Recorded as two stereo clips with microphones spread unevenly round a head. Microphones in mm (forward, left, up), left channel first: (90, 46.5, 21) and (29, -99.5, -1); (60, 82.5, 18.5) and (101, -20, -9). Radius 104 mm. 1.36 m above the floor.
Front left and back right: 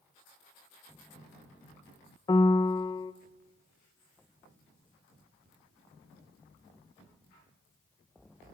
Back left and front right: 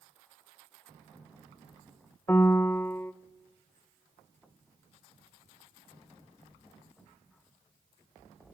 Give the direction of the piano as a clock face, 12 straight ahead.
9 o'clock.